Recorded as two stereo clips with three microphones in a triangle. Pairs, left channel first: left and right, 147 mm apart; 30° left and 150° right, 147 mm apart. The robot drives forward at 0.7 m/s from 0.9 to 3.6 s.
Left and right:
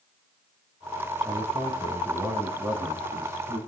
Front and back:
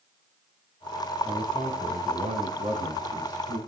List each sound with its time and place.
1.2 s a man speaking: 135° right, 1.9 m; by 3.6 s 160° right, 3 m